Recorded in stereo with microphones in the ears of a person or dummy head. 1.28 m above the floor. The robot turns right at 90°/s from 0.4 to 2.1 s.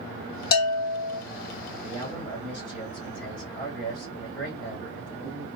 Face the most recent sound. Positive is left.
turn(degrees=-60)  # may be behind; listen again after turning